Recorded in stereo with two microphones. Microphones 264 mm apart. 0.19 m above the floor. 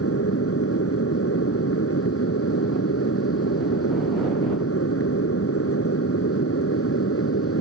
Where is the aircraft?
60° left (ahead or behind).